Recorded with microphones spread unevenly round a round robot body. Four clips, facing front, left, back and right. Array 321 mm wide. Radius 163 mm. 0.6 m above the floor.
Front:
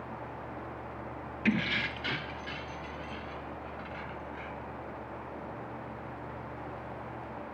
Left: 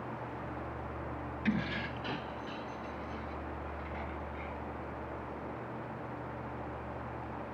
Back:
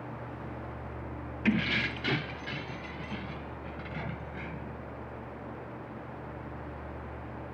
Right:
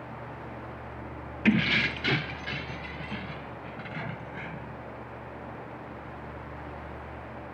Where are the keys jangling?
80° right; by 4.8 s 130° right.